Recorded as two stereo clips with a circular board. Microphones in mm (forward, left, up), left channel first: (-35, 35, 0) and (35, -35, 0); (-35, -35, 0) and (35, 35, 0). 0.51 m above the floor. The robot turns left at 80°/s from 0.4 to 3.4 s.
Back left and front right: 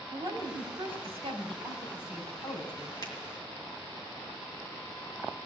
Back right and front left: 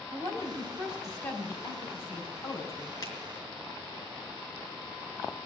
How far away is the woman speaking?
About 4 m.